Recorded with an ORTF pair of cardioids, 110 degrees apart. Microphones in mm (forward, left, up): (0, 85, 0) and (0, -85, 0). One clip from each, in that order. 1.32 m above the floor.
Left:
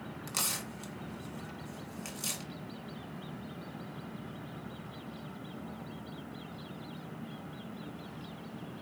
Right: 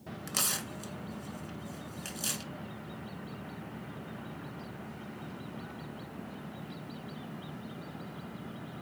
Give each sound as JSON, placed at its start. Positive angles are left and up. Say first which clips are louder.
{"t": 0.3, "sound": "tearing paper", "louder": "right 2 dB", "azimuth_deg": -10, "distance_m": 1.2}